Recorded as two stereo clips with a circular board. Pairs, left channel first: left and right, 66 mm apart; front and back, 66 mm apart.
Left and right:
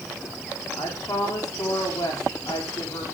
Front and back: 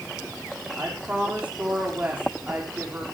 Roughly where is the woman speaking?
Left.